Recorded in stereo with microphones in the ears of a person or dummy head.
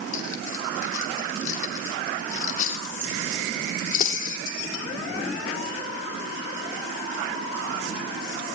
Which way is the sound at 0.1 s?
50° left (ahead or behind).